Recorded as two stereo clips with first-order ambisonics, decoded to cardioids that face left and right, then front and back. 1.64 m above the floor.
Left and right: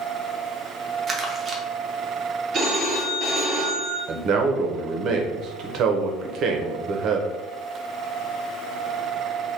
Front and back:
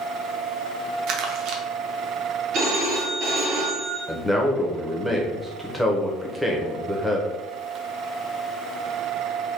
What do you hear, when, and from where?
1.1 s crumpling: 160° right, 0.7 m
2.5 s a phone ringing: 155° right, 1.6 m
4.1 s a man speaking: 90° right, 0.6 m